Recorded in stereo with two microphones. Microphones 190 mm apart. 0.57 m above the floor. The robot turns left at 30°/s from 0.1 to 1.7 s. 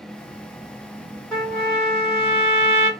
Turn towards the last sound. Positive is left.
turn(degrees=10)  # may be behind; listen again after turning